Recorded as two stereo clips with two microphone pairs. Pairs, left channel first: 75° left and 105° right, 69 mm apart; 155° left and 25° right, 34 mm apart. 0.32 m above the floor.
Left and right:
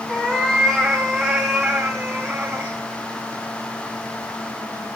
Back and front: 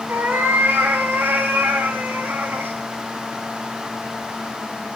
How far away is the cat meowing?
About 4.5 m.